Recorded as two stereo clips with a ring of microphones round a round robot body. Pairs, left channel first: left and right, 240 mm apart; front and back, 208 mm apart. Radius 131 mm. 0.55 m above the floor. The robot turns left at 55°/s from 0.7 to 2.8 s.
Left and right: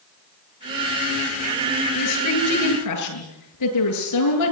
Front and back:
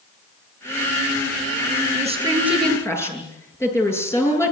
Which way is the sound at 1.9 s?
125° left.